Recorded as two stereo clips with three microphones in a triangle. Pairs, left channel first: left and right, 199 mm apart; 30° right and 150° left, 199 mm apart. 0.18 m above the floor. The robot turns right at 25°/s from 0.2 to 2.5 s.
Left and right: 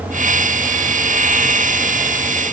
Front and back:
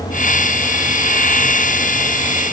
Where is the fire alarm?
I don't hear a fire alarm.